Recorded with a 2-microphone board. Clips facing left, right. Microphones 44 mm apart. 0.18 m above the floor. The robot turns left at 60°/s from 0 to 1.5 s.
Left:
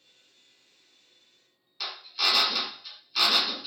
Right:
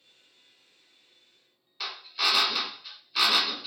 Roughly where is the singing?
I don't hear singing.